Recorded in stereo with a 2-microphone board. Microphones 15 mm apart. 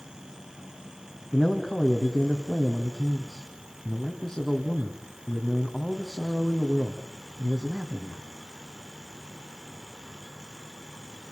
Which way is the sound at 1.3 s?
40° left (ahead or behind).